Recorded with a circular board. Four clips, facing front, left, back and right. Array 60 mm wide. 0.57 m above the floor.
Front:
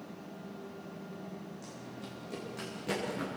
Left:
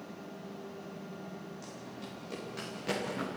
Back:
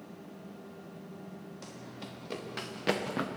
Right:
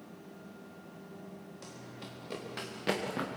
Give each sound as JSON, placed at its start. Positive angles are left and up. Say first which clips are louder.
{"t": 1.6, "sound": "running footsteps", "louder": "left 3 dB, even", "azimuth_deg": -155, "distance_m": 6.5}